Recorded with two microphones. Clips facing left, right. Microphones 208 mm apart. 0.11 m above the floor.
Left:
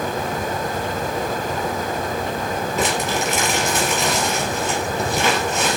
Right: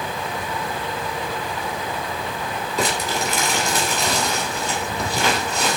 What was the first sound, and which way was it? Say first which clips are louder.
Crumpling: even; 5° left (ahead or behind).